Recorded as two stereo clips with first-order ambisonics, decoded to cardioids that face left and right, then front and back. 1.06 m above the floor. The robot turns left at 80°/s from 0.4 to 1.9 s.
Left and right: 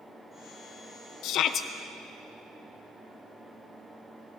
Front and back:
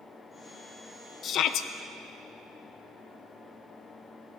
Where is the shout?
60° left, 0.6 m; by 1.7 s 20° left, 0.6 m.